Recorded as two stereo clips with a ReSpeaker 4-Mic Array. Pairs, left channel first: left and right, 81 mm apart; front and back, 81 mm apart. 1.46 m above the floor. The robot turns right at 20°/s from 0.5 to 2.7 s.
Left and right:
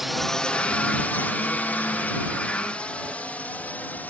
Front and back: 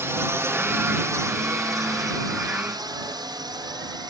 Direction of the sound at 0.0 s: 175° right.